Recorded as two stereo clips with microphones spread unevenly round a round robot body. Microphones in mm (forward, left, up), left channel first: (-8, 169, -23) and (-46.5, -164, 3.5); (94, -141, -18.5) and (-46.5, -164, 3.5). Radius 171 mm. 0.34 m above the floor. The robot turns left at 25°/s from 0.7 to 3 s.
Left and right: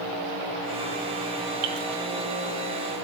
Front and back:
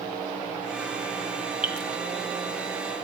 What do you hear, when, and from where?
1.6 s dripping: 85° right, 1.9 m; by 1.9 s 90° right, 1.9 m